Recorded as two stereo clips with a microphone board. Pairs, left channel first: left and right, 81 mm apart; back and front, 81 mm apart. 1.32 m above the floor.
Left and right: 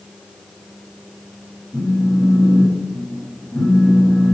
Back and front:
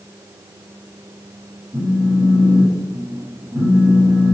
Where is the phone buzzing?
Straight ahead, 1.4 m.